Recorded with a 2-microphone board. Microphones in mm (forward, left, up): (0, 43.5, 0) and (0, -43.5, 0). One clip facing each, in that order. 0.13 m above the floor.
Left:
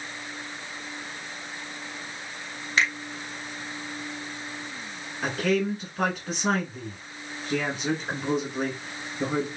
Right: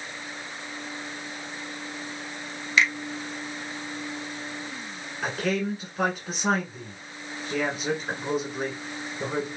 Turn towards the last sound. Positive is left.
turn(degrees=0)  # may be behind; listen again after turning